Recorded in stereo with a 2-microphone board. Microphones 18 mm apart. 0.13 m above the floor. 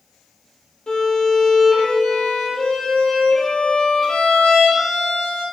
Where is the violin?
50° left (ahead or behind), 3 m.